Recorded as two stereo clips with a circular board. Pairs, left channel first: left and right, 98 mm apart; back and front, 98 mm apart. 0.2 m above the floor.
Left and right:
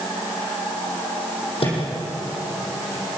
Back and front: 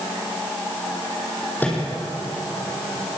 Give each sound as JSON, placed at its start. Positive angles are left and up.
{"t": 1.6, "sound": "a microwave", "azimuth_deg": 110, "distance_m": 6.0}